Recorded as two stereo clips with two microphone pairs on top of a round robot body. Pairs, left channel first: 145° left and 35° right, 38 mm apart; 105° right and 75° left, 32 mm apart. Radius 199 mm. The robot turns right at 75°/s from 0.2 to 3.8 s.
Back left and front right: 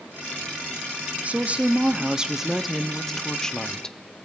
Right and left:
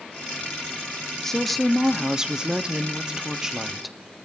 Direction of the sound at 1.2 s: 40° right.